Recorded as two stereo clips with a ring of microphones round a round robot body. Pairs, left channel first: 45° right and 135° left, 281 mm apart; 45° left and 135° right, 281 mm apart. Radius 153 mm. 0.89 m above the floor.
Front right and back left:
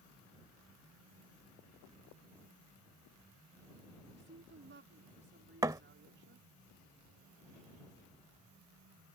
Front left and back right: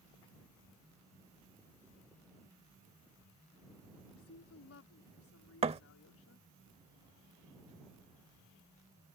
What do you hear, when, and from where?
4.1 s a woman speaking: 85° left
5.6 s a thud: 165° right